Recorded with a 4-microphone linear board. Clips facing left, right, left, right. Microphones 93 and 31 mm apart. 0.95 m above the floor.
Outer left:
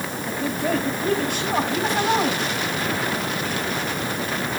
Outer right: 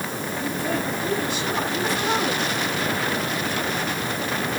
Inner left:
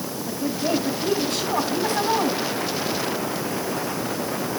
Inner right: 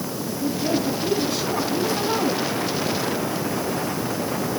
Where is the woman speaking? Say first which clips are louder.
Outer left 3 dB, even; 55° left (ahead or behind), 6 m.